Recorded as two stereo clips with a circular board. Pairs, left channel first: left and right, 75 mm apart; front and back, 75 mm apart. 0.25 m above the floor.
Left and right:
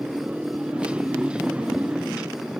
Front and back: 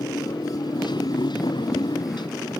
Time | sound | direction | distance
0.0 | a motorcycle | 15° right | ?